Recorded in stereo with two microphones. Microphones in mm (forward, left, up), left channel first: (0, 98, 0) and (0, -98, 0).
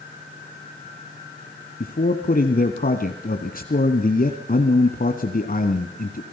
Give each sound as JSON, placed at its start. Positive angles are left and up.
{"t": 1.8, "sound": "a man speaking", "side_deg": 45, "distance_m": 1.5}